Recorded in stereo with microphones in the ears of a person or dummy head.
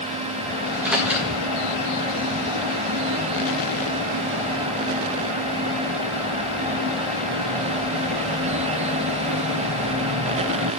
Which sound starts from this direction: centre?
A microwave, at 0.7 s.